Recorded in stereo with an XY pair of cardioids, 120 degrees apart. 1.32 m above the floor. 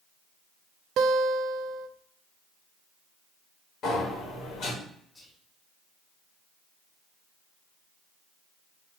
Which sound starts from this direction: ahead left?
A sliding door, at 3.8 s.